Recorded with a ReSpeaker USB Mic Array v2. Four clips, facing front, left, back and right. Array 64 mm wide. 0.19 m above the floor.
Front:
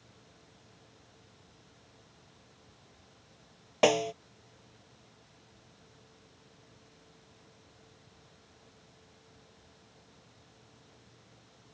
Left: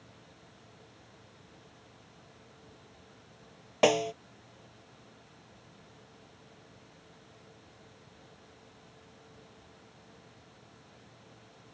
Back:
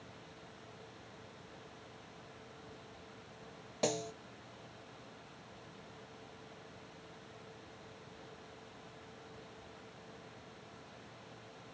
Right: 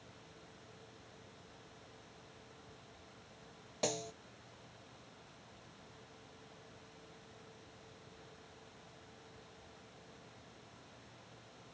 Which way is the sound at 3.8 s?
45° left.